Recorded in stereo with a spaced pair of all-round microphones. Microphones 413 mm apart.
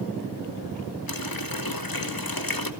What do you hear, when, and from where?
1.1 s a running tap: 55° left (ahead or behind), 2.0 m